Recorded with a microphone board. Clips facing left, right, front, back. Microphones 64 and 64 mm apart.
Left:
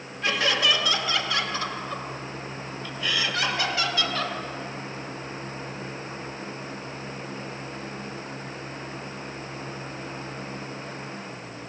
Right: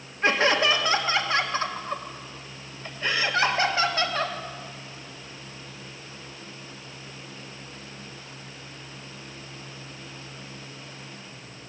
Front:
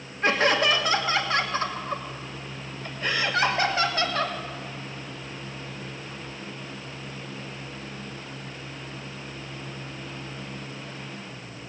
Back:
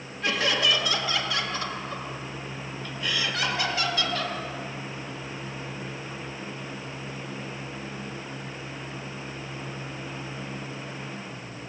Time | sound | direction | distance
0.2 | laughter | 40° right | 1.6 m